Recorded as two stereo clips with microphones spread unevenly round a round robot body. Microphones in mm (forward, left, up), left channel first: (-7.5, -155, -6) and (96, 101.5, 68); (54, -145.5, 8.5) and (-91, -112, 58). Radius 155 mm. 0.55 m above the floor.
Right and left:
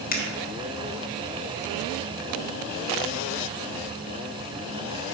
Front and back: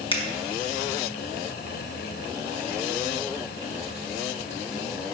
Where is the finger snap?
60° right, 1.4 m.